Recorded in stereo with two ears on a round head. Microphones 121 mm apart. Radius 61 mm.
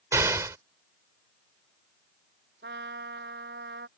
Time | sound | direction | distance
0.1 | an explosion | 20° right (ahead or behind) | ?
2.6 | a trumpet | 85° right | ?